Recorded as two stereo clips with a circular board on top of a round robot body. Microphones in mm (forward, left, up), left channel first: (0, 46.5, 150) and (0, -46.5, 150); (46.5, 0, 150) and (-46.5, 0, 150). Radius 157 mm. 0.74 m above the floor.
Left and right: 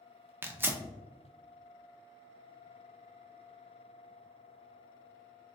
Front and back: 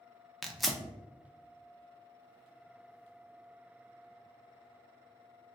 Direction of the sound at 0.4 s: 90° right.